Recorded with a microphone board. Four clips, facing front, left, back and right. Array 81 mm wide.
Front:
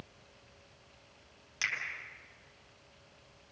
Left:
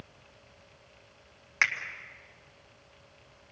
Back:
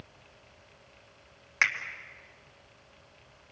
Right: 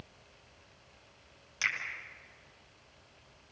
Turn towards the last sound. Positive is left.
turn(degrees=135)